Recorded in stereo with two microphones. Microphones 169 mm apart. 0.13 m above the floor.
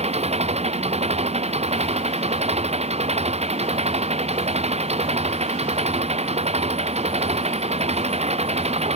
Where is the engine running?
35° right (ahead or behind).